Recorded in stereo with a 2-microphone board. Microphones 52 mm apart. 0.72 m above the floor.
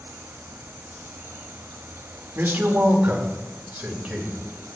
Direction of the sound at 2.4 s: 40° right (ahead or behind).